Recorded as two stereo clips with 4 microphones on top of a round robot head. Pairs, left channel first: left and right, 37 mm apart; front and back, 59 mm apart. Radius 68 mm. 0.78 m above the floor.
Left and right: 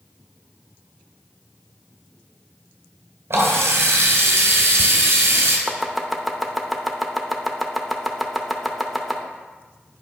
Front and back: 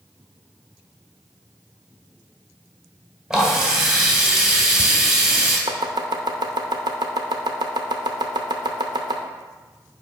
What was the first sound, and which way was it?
A running tap, 105° right.